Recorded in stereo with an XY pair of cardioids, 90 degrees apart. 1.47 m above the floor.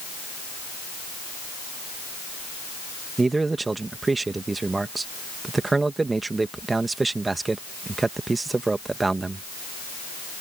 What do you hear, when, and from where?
3.2 s a man speaking: 25° right